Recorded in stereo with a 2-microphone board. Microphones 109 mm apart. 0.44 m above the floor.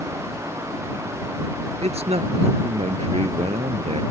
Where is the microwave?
No microwave in this recording.